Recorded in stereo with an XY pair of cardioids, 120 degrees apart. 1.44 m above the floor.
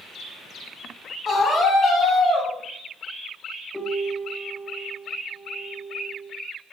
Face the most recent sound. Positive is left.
turn(degrees=10)